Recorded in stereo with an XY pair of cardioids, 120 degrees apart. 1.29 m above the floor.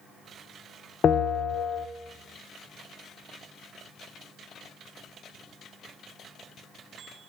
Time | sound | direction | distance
1.0 | a bell | 45° left | 0.8 m